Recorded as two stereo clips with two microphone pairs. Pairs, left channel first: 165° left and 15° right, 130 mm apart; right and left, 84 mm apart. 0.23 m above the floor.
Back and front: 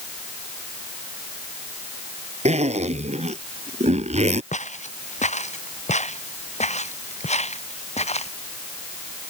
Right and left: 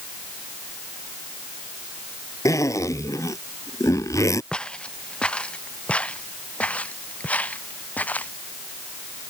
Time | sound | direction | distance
2.5 | a zipper | 45° right | ?
4.5 | footsteps | 170° right | ?